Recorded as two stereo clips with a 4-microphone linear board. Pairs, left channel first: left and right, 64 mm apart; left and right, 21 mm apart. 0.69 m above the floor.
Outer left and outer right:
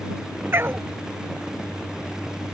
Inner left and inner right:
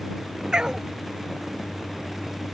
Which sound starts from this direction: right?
A dog barking, at 0.5 s.